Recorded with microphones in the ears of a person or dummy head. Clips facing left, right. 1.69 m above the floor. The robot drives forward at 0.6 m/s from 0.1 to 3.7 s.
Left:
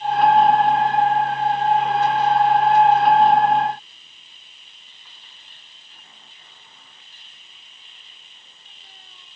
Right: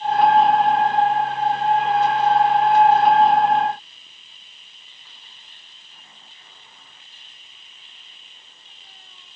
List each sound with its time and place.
Only background noise.